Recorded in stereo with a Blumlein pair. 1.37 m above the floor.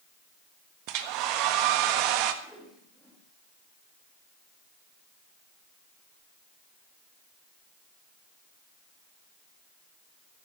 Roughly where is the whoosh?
Ahead.